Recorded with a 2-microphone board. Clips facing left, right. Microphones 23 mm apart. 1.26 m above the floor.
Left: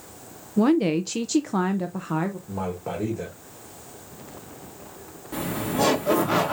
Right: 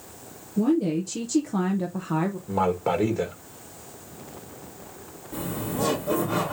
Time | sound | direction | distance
0.6 | a woman speaking | 70° left (ahead or behind) | 0.6 m
2.5 | a man speaking | 35° right (ahead or behind) | 1.1 m
5.3 | laughter | 75° left (ahead or behind) | 2.0 m